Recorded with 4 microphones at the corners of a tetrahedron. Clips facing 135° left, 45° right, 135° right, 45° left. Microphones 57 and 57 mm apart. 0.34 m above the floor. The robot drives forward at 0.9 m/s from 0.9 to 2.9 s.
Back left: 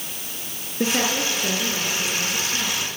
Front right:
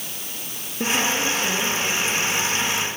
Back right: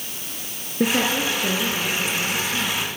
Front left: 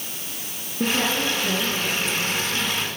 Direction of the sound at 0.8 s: 160° right.